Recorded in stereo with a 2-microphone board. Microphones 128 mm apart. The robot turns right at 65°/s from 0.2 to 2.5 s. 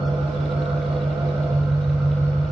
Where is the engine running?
110° right, 1.1 m; by 2.5 s 40° left, 1.1 m.